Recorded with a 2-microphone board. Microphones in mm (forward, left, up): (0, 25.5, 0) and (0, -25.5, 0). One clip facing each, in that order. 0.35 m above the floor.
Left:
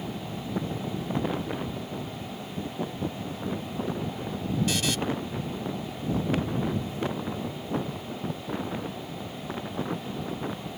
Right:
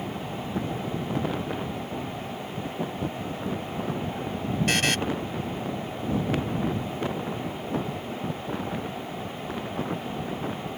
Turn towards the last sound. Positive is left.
turn(degrees=-60)  # may be behind; listen again after turning